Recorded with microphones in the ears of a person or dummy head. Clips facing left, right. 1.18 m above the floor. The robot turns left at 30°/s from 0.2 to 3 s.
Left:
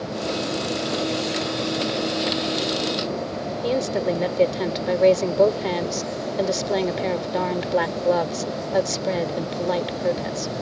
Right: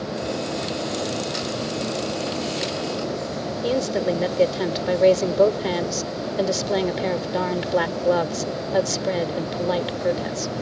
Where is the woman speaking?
5° right (ahead or behind).